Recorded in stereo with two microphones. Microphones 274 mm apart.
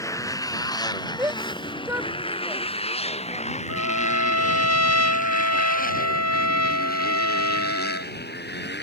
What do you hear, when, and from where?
0.0 s a motorcycle: 10° left (ahead or behind); by 8.8 s 40° left (ahead or behind)
1.2 s a shout: 10° right (ahead or behind)
3.7 s a trumpet: 65° left (ahead or behind)